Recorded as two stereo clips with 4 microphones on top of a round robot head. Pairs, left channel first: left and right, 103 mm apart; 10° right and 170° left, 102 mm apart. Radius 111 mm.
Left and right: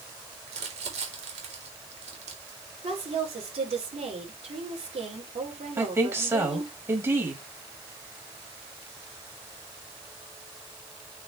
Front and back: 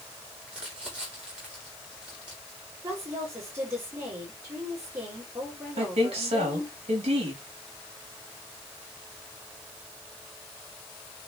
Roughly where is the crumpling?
Right.